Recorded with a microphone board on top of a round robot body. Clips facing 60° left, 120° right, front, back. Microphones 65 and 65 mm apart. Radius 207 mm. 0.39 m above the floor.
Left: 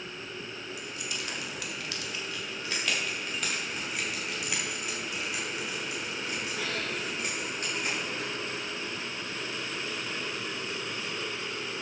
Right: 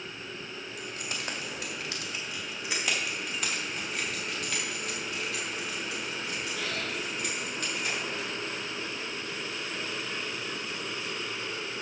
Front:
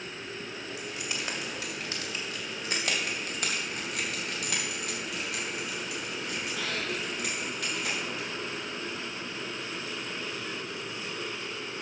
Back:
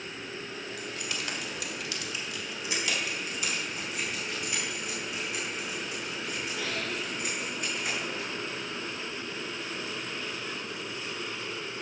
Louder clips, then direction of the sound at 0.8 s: Right 2 dB, even; 75° right.